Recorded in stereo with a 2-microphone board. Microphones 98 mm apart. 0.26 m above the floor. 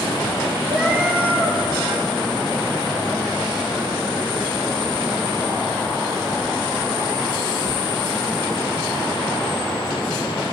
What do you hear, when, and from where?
0.7 s a cat meowing: 15° right (ahead or behind), 2.5 m